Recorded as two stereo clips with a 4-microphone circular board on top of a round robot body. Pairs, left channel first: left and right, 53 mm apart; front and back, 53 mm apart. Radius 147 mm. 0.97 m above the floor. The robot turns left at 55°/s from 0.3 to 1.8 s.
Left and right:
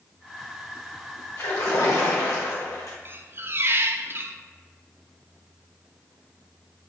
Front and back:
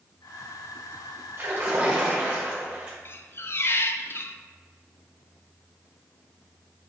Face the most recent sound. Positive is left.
turn(degrees=-45)